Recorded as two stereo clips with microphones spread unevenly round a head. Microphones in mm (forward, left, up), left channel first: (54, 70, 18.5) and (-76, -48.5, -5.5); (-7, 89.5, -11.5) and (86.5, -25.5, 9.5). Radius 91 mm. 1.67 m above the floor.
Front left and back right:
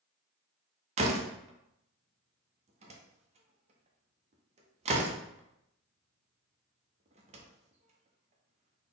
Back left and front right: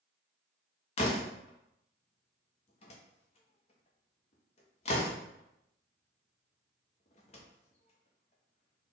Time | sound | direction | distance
1.0 | a door slam | 175° left | 0.6 m